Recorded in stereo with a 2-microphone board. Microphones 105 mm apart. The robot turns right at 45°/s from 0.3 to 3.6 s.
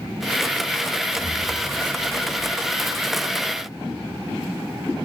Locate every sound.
1.2 s an explosion: 50° left, 5.5 m; by 3.1 s 135° left, 5.5 m